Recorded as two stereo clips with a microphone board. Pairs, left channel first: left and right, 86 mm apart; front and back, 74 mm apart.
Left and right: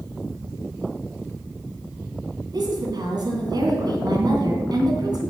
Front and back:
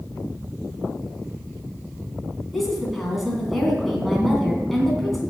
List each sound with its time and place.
2.5 s a woman speaking: 85° right, 2.5 m